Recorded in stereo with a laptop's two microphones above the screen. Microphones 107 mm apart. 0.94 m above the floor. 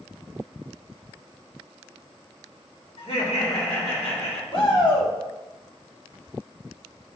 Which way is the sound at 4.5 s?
50° left (ahead or behind).